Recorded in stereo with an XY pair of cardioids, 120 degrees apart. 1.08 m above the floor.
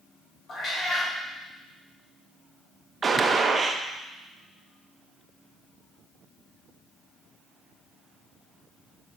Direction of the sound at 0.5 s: 40° left.